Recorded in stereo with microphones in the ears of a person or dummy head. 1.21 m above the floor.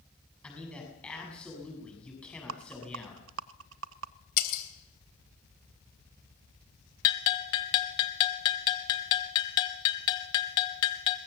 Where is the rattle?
75° right (ahead or behind), 0.8 m.